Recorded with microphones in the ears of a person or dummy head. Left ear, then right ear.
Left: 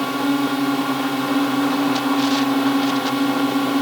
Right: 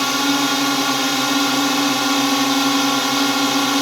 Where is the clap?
No clap in this recording.